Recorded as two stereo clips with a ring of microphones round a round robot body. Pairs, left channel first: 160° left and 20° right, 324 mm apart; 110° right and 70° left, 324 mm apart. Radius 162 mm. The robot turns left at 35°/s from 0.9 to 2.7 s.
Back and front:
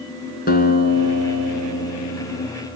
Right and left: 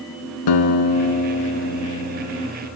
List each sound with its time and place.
0.5 s a guitar: 135° right, 2 m; by 2.5 s 165° left, 2 m